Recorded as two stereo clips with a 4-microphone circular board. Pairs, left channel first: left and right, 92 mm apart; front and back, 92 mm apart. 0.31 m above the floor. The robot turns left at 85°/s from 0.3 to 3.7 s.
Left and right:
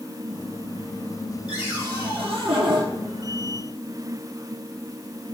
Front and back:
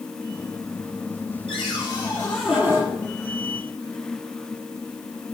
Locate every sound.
1.5 s a cupboard door: 5° right, 4.5 m; by 2.9 s 125° right, 4.5 m